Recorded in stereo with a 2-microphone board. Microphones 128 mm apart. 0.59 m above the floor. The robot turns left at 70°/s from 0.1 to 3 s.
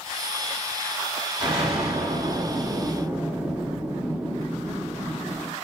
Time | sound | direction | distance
1.4 | an explosion | 50° right | 1.8 m